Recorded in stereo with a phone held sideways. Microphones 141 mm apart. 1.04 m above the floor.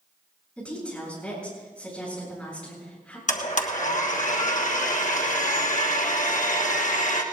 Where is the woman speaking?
10° left (ahead or behind), 8 m.